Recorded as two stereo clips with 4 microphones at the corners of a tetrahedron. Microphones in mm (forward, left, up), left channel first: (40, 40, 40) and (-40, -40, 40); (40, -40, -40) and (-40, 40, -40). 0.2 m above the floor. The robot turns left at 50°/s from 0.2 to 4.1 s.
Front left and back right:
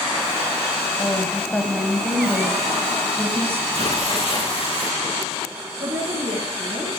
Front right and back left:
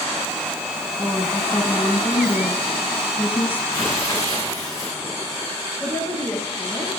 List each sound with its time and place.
1.0 s a woman speaking: 35° left, 1.3 m; by 3.6 s 100° right, 1.3 m
3.7 s tearing paper: 30° left, 8 m; by 5.0 s 10° left, 8 m
5.8 s a woman speaking: 125° right, 8.5 m